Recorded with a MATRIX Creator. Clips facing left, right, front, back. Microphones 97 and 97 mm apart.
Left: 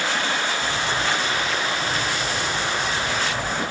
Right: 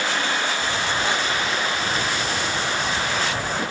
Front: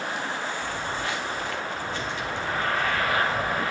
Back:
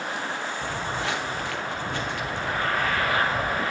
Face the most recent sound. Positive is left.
turn(degrees=-125)